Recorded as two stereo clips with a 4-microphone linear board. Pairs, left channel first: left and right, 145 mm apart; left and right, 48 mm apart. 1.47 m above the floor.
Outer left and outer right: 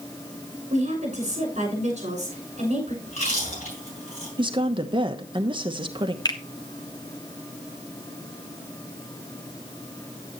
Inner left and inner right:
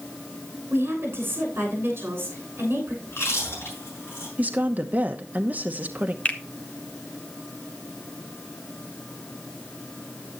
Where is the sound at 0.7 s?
50° right (ahead or behind), 6.5 m.